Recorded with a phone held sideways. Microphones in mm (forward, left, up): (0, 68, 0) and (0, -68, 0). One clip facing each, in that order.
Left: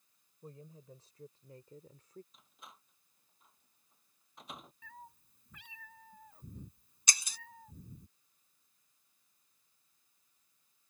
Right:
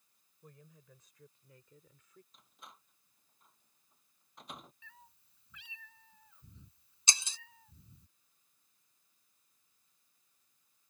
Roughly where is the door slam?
Centre.